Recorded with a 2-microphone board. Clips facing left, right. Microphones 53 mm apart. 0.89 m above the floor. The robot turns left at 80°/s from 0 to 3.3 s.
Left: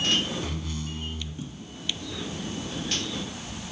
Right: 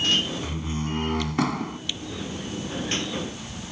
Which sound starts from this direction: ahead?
A door slam, at 0.4 s.